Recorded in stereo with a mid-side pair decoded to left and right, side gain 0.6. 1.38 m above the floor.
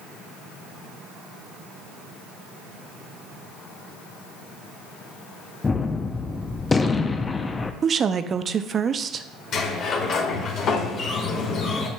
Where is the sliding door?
50° left, 1.5 m.